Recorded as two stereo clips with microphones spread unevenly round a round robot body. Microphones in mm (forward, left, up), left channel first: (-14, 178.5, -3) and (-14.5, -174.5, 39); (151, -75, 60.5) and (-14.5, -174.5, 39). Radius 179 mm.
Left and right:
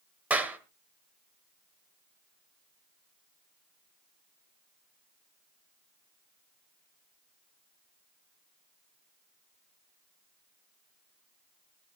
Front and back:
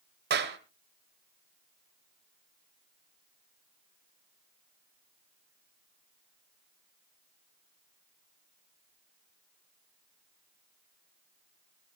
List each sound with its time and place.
0.3 s a clap: straight behind, 1.7 m